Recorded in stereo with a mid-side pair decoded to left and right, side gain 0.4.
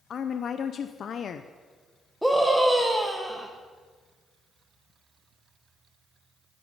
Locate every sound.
0.1 s a woman speaking: 60° left, 0.6 m
2.2 s a scream: straight ahead, 1.5 m